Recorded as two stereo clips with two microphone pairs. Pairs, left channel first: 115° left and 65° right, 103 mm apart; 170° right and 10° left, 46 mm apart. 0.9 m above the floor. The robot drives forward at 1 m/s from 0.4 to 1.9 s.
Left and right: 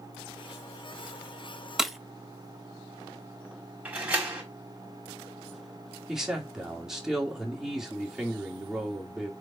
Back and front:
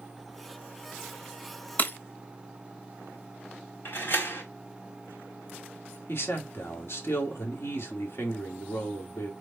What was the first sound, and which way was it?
Breaking glass, 150° right.